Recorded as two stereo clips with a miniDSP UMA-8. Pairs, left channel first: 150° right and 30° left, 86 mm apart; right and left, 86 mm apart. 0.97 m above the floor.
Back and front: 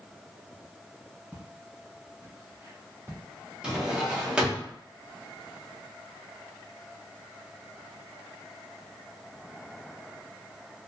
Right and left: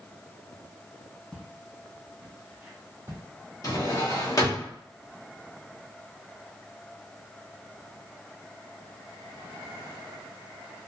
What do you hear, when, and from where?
1.3 s footsteps: 15° right, 1.3 m; by 3.2 s 70° left, 1.1 m
3.6 s a drawer: 50° right, 0.7 m